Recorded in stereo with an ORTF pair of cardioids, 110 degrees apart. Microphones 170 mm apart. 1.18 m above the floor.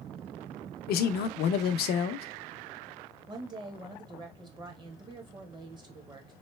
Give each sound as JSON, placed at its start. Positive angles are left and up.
{"t": 0.9, "sound": "a man speaking", "azimuth_deg": 65, "distance_m": 0.5}
{"t": 3.3, "sound": "a woman speaking", "azimuth_deg": -25, "distance_m": 1.2}